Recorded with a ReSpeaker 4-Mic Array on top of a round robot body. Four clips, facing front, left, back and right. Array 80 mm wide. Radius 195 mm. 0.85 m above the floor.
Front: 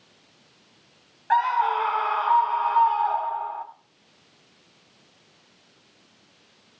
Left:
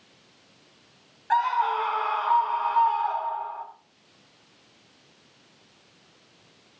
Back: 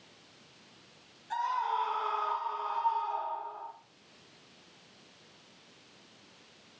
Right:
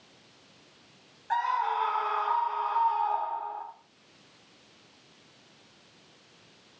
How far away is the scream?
About 6 m.